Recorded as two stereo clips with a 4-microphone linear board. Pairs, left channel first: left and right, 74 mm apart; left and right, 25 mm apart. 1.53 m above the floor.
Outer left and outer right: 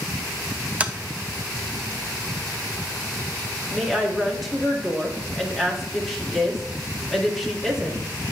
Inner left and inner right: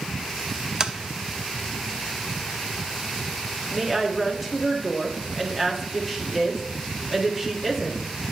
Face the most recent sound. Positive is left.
turn(degrees=0)  # may be behind; listen again after turning